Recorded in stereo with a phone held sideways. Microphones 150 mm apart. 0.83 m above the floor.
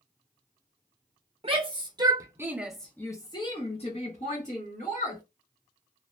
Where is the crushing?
No crushing in this recording.